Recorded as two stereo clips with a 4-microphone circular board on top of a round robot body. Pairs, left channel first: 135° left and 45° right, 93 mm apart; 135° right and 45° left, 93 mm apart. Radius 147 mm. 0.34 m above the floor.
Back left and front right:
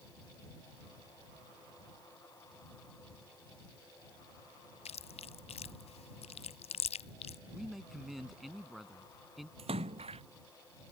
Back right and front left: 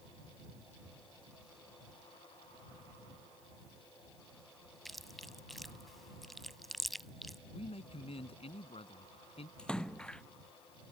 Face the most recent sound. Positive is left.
turn(degrees=-55)